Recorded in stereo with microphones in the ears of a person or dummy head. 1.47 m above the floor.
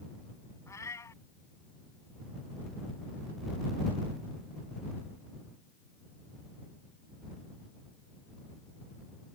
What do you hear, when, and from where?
0.7 s a cat meowing: 15° left (ahead or behind)